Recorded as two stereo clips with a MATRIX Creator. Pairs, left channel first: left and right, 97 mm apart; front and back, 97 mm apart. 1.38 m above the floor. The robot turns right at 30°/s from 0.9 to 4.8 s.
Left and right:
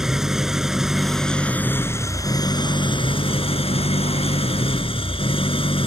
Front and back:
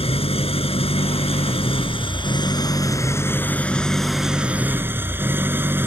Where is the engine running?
5° right; by 5.9 s 110° left.